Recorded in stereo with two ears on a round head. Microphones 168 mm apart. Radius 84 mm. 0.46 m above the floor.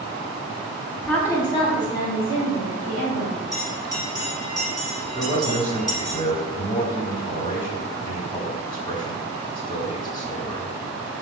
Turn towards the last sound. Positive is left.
turn(degrees=25)  # may be behind; listen again after turning